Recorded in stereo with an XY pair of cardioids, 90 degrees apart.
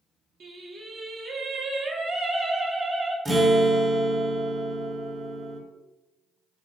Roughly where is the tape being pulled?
No tape being pulled in this recording.